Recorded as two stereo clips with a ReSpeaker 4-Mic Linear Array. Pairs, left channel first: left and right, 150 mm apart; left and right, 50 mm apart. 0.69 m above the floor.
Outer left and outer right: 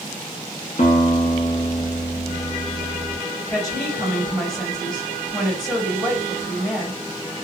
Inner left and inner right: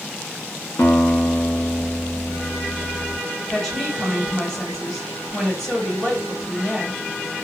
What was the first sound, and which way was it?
A guitar, 50° left (ahead or behind).